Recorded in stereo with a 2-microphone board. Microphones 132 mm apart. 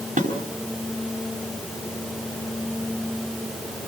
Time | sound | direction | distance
0.2 | dishes clattering | 80° right | 5 m